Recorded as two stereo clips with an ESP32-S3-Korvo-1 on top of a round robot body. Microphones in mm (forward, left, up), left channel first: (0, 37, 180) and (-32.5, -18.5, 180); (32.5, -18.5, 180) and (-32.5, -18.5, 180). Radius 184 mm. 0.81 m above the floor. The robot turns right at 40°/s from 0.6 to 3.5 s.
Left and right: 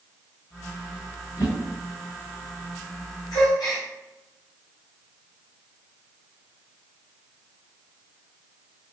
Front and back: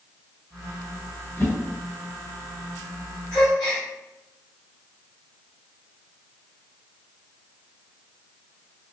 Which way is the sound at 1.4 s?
55° left.